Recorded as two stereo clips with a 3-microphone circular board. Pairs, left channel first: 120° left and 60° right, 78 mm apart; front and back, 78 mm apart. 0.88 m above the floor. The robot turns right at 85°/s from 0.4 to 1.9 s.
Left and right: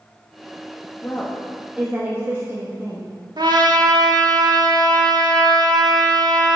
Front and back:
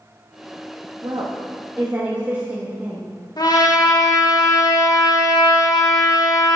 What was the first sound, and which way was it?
A woman speaking, 165° left.